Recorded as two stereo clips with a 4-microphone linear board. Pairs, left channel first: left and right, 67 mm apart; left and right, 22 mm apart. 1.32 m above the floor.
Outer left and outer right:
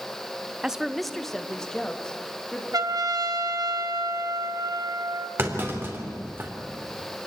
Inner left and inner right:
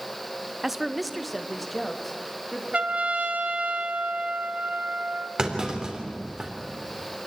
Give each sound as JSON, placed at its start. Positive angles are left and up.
{"t": 0.6, "sound": "a woman speaking", "side_deg": -15, "distance_m": 0.8}
{"t": 2.7, "sound": "a trumpet", "side_deg": -65, "distance_m": 1.7}
{"t": 5.4, "sound": "a clunk", "side_deg": -35, "distance_m": 3.5}